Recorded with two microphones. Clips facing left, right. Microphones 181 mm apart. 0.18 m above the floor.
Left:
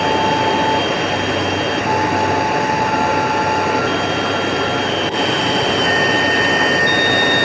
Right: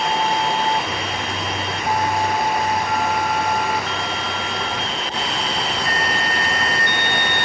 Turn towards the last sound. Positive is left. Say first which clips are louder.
# left 6 dB
turn(degrees=70)  # may be behind; listen again after turning